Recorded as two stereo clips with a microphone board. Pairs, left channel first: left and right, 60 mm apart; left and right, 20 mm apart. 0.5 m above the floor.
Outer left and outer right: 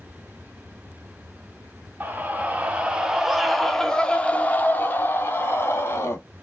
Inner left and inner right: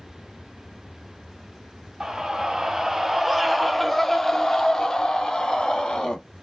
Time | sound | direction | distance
2.0 | a scream | 30° right (ahead or behind) | 1.4 m